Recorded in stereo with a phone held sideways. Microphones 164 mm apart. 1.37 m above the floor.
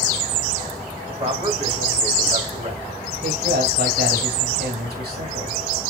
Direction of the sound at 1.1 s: 40° right (ahead or behind).